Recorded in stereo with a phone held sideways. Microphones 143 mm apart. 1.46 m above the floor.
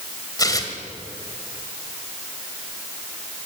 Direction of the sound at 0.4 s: 30° left (ahead or behind).